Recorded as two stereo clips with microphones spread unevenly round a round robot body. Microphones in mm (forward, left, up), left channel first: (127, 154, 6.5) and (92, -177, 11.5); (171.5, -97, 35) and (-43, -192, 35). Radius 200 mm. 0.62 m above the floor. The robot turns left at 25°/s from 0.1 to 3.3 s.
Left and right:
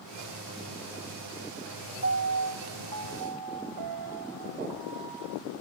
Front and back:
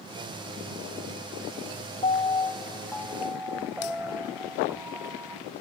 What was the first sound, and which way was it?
A piano, 40° right.